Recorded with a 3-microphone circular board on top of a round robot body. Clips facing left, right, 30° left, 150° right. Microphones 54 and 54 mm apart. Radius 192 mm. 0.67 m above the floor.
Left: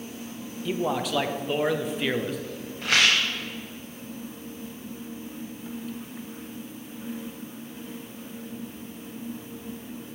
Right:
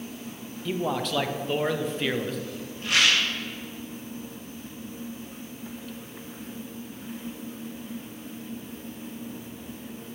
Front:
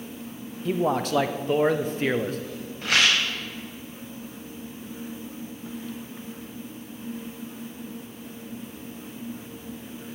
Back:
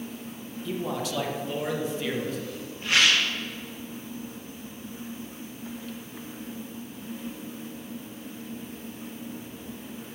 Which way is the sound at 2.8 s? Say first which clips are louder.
Left 1 dB, even; 65° left.